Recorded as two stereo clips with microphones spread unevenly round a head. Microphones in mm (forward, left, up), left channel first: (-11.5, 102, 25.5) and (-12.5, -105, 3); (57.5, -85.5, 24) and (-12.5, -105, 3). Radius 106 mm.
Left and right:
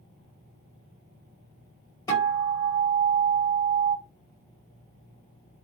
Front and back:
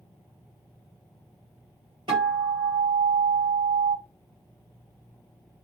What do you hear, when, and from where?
2.1 s a guitar: 155° left, 1.8 m